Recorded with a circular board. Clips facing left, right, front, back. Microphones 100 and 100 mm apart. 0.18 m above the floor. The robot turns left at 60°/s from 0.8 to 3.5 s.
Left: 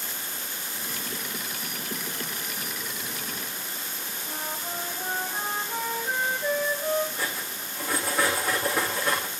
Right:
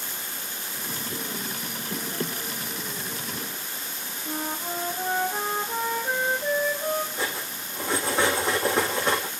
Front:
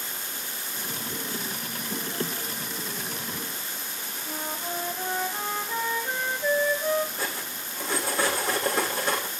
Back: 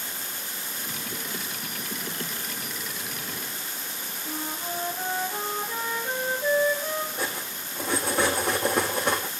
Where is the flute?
130° right, 6.5 m.